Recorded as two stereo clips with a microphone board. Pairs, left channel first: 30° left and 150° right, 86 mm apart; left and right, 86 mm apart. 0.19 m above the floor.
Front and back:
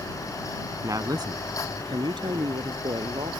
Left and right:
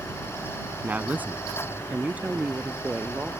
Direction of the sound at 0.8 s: 150° right.